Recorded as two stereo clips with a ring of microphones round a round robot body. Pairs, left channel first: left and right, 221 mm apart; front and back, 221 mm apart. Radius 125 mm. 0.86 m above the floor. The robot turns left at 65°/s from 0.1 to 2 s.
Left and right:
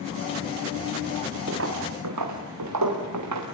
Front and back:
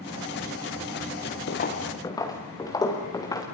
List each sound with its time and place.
1.5 s footsteps: 35° right, 4 m; by 3.4 s 75° right, 5.5 m